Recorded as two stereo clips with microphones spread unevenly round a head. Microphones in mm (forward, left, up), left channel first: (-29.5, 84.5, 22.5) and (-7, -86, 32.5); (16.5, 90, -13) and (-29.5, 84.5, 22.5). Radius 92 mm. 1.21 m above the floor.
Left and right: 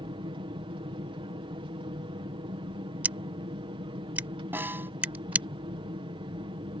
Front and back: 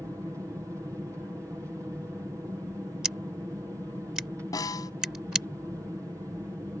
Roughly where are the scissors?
Behind right.